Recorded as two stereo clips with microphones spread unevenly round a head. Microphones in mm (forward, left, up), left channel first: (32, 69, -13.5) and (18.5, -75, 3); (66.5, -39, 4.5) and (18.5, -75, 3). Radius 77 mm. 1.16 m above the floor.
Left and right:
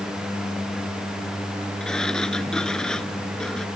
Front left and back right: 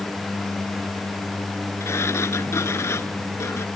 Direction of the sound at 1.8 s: Straight ahead.